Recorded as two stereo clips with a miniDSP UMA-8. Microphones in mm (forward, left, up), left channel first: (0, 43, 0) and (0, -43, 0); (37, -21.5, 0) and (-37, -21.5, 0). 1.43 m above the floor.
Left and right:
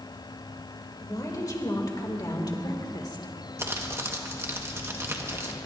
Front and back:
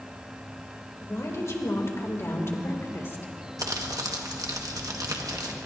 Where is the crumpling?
145° right, 1.4 m.